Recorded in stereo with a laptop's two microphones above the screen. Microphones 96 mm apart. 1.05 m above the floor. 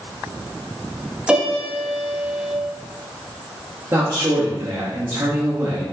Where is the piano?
10° right (ahead or behind), 0.8 m.